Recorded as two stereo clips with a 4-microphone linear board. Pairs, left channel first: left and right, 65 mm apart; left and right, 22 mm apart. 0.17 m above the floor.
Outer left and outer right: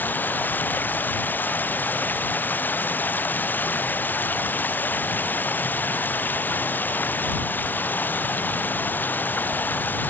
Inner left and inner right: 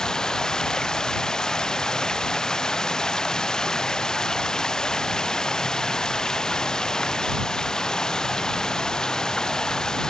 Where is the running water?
30° left (ahead or behind).